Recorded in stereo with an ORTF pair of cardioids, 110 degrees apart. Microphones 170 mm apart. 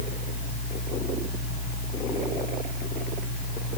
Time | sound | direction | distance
0.0 | a fan | 50° left | 0.9 m